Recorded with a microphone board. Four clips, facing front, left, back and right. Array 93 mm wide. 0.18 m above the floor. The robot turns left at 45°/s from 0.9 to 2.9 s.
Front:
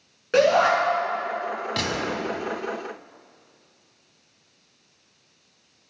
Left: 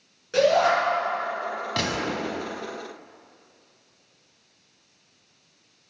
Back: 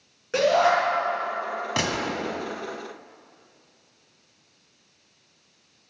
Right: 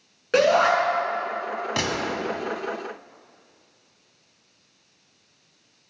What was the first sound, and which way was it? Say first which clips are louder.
A shout: right 1 dB, front 2 dB; 65° right.